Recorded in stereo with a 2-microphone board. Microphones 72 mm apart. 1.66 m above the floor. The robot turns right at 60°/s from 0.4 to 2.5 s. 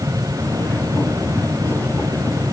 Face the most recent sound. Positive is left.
No sound to turn to.